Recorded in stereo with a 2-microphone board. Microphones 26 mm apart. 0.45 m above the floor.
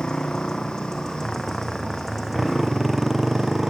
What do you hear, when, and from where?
0.0 s a motorcycle: 20° left (ahead or behind); by 3.7 s 15° right (ahead or behind)